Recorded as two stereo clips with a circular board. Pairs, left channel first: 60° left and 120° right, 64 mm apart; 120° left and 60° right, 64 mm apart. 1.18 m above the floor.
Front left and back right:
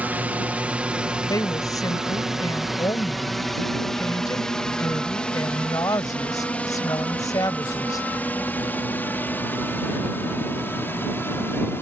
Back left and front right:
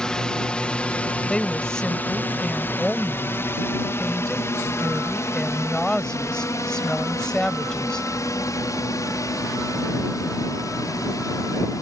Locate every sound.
0.0 s a drone: 170° right; by 11.8 s 110° left
1.3 s a woman speaking: 40° left